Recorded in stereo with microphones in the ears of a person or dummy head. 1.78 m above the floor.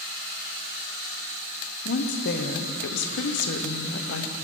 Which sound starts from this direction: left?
A woman speaking, at 1.9 s.